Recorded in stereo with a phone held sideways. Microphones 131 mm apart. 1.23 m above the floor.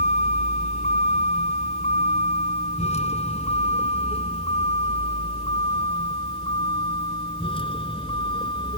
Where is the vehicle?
70° left (ahead or behind); by 8.8 s 40° left (ahead or behind).